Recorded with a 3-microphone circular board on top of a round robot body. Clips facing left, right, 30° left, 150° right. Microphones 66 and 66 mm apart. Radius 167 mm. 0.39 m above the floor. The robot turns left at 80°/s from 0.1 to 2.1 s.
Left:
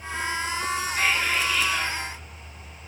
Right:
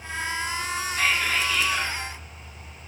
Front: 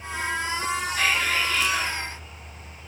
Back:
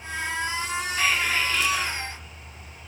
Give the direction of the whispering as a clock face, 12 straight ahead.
10 o'clock.